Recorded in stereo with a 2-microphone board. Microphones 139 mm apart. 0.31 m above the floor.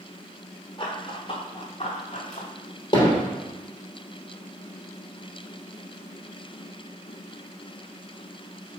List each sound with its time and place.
0.8 s running footsteps: 35° left (ahead or behind), 3 m; by 2.5 s 55° left (ahead or behind), 2.5 m
2.9 s hammering: 35° left (ahead or behind), 3.5 m